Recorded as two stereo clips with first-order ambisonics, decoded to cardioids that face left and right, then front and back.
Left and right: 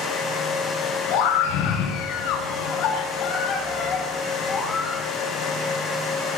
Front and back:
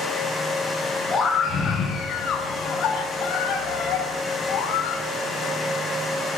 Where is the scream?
70° left, 8 m; by 5.0 s 25° left, 7 m.